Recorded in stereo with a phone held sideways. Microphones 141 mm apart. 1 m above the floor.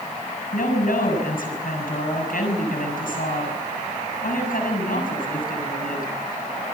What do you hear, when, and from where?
0.5 s a woman speaking: 80° left, 7 m